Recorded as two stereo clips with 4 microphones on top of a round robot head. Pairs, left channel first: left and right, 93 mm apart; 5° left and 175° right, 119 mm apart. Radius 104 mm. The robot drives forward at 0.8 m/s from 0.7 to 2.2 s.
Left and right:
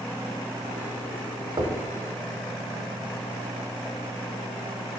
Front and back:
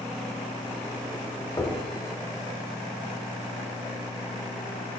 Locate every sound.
1.6 s knocking: 55° right, 1.0 m; by 1.8 s 70° right, 1.0 m